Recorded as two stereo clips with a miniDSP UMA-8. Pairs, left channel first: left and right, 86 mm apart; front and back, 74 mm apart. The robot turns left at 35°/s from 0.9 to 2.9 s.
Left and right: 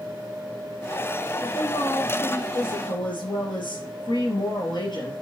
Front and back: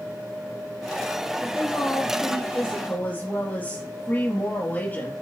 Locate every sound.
1.4 s a woman speaking: 120° left, 3.5 m; by 5.1 s 65° left, 3.5 m